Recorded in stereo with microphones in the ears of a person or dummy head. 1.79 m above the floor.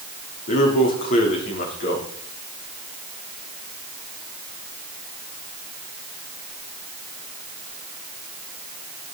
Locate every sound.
0.5 s a man speaking: 45° left (ahead or behind), 4 m